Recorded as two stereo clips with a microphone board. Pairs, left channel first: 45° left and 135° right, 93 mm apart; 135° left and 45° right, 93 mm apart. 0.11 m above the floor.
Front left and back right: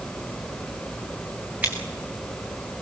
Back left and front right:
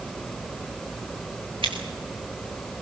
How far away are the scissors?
About 4 m.